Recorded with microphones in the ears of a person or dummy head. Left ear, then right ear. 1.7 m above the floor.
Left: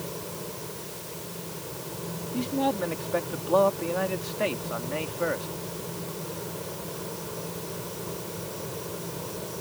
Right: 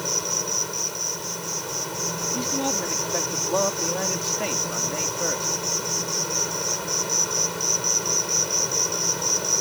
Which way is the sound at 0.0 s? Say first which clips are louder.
Right 11 dB; 55° right (ahead or behind).